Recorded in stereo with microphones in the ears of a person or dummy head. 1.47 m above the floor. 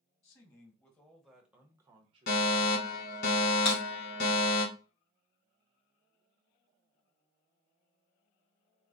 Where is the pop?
I don't hear a pop.